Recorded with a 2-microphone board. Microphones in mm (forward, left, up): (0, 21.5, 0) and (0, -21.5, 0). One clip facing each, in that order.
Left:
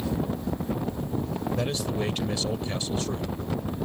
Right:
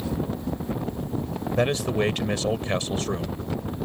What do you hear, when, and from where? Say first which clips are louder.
1.6 s a man speaking: right 9 dB; 50° right (ahead or behind)